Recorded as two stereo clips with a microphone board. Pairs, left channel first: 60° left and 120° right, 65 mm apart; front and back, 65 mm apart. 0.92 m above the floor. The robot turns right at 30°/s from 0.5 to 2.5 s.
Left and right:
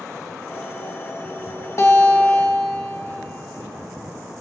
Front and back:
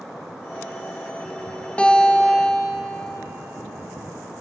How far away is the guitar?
About 1.4 m.